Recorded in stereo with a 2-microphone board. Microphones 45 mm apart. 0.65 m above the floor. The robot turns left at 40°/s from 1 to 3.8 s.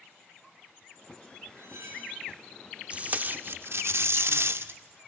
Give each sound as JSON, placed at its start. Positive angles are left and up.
{"t": 1.6, "sound": "cutlery clinking", "side_deg": -80, "distance_m": 5.0}
{"t": 2.9, "sound": "tape being pulled", "azimuth_deg": -30, "distance_m": 0.6}